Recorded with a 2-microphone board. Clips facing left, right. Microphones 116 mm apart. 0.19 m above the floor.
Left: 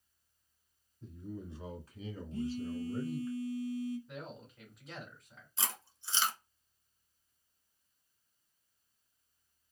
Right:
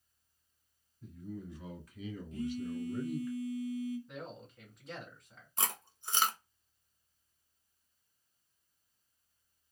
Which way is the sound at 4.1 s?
Centre (ahead or behind).